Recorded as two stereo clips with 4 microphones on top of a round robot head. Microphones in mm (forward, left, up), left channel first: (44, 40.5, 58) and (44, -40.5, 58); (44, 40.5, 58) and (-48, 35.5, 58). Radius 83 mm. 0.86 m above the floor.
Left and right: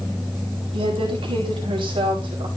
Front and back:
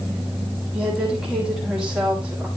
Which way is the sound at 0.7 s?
95° right.